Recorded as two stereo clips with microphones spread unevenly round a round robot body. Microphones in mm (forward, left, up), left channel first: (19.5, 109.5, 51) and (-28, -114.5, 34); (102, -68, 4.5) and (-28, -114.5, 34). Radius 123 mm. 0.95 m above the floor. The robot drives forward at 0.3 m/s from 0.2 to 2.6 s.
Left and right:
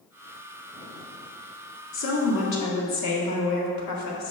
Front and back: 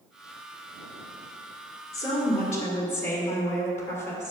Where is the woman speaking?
60° left, 1.8 m; by 4.3 s 65° left, 1.8 m.